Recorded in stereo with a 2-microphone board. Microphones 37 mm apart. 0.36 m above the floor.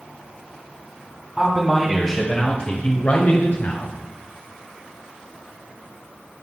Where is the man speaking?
15° right (ahead or behind), 2 m; by 3.9 s 55° left (ahead or behind), 2.0 m.